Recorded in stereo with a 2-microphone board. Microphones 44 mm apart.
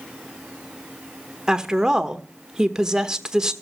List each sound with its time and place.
1.5 s a woman speaking: 15° right (ahead or behind), 1.1 m